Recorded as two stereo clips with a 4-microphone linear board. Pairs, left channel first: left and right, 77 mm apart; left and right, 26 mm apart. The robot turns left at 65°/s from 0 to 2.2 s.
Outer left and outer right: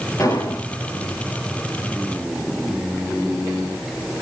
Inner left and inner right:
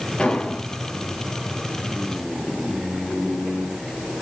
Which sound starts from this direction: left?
An explosion, at 0.2 s.